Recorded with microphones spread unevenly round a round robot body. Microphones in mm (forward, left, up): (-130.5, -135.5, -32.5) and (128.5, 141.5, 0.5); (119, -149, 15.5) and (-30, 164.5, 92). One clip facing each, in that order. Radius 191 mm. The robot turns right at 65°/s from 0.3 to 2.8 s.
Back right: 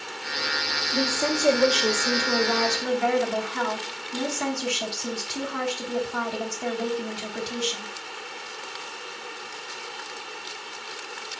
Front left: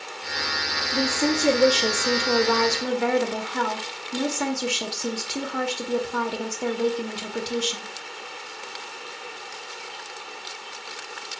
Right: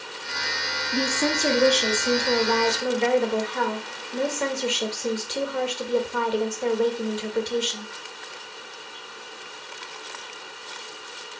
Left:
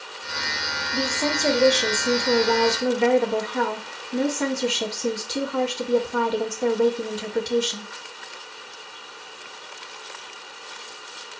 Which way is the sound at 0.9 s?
40° right.